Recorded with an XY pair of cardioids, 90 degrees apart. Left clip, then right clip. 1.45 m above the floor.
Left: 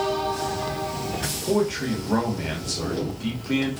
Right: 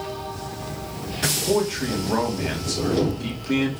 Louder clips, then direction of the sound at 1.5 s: Left 3 dB; 10° right.